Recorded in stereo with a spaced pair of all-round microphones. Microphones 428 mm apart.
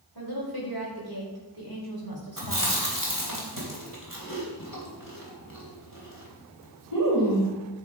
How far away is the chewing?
About 3 m.